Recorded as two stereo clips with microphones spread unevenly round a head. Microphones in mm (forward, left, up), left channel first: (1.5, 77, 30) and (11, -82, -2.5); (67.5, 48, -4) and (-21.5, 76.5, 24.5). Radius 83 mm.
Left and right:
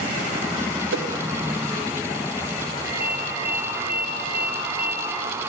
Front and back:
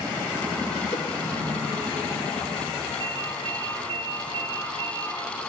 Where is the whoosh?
85° right, 1.3 m.